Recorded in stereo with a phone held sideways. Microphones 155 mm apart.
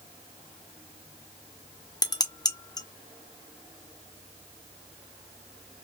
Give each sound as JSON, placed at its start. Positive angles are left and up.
{"t": 2.0, "sound": "dishes clattering", "side_deg": 25, "distance_m": 0.5}